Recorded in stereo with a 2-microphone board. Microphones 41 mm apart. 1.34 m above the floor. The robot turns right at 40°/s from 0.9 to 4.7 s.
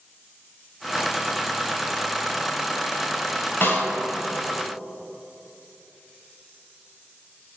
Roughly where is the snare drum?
Left.